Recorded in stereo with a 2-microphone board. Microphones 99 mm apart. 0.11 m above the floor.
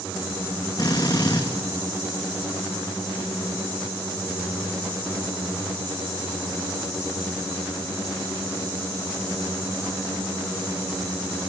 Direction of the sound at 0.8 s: 40° left (ahead or behind).